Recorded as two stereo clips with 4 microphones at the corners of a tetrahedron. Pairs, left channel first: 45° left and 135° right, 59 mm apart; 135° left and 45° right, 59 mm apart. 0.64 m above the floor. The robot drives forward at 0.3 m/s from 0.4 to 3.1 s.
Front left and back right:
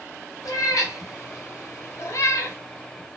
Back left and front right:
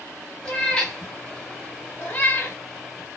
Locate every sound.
0.5 s a cat meowing: 60° left, 1.5 m; by 2.6 s 85° left, 1.3 m